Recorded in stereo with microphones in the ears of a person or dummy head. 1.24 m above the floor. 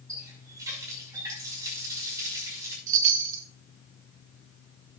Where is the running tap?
20° right (ahead or behind), 5.5 m.